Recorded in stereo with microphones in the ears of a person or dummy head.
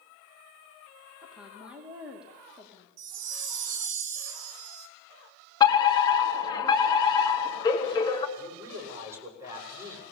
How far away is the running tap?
I don't hear a running tap.